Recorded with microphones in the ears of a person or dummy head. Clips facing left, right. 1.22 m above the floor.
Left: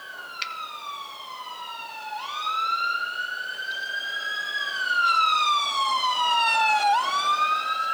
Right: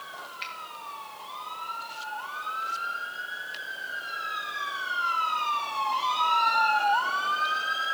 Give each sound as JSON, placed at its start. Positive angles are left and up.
{"t": 0.4, "sound": "a finger snap", "side_deg": 60, "distance_m": 1.0}